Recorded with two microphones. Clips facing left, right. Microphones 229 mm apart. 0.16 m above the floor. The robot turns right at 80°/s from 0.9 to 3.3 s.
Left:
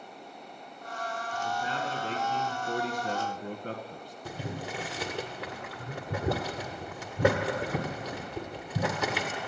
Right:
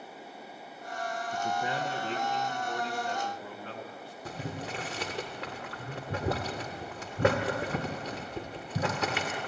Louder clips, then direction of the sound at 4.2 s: Left 1 dB; centre (ahead or behind).